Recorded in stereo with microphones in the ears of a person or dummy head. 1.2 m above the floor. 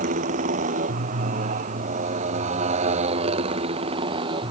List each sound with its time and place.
0.0 s a motorcycle: 45° right (ahead or behind); by 4.5 s 30° right (ahead or behind)